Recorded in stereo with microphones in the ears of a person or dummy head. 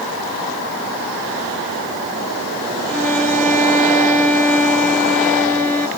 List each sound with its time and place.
2.9 s a violin: 10° left (ahead or behind), 1.1 m